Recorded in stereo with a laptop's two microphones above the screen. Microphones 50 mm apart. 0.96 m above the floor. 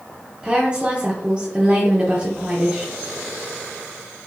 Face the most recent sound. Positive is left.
turn(degrees=-15)  # may be behind; listen again after turning